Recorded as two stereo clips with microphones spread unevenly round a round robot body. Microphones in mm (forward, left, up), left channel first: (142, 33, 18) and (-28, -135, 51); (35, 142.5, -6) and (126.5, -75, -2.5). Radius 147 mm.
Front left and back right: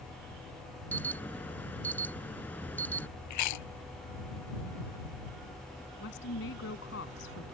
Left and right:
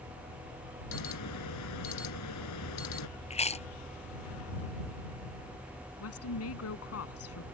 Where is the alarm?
130° left.